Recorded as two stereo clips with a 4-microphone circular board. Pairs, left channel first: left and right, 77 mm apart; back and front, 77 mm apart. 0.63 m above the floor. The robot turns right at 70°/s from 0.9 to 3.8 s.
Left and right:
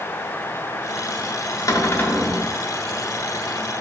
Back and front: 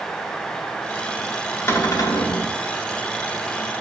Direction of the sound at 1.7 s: 125° left.